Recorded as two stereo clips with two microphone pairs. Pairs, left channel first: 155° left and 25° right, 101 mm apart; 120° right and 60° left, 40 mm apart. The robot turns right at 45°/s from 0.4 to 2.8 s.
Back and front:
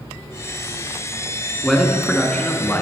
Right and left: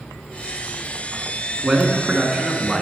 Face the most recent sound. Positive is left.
turn(degrees=125)